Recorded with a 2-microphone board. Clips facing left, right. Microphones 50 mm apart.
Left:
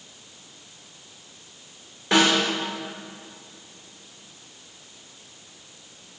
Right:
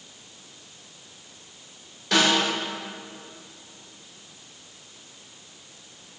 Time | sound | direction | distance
2.1 | a snare drum | 25° left (ahead or behind) | 2.5 m